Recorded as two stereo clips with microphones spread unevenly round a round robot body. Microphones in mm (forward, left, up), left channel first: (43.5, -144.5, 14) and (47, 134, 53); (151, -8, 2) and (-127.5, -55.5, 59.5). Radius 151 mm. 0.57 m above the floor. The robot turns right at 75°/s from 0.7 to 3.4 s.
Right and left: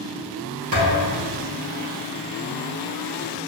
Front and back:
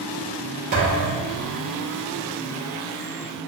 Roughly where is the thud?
Behind left.